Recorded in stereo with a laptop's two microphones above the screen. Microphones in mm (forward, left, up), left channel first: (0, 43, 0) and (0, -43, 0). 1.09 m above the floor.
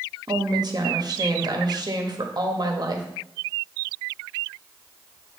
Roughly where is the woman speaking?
Right.